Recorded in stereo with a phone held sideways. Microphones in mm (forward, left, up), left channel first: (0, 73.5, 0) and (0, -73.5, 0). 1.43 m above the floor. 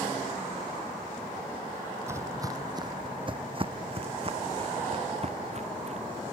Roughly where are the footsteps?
Centre.